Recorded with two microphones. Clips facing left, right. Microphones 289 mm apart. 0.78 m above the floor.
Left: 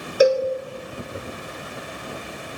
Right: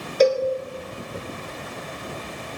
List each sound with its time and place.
0.2 s a cowbell: 10° left (ahead or behind), 0.5 m